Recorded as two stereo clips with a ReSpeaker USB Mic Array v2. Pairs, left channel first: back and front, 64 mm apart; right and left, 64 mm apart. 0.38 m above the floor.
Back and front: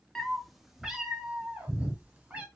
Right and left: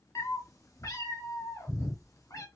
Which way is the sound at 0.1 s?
100° right.